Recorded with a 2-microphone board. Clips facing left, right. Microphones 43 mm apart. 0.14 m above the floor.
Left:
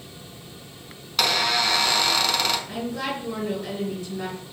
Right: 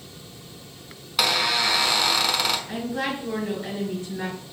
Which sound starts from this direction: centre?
A squeak, at 1.2 s.